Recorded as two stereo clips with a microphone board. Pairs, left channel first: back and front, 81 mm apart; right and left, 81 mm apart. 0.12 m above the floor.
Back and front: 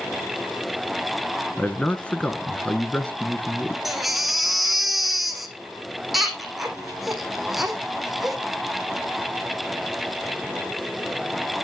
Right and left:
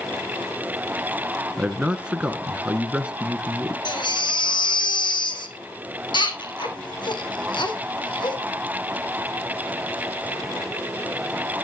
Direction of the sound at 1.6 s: 135° left.